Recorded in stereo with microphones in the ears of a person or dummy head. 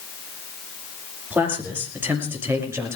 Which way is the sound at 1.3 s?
5° right (ahead or behind).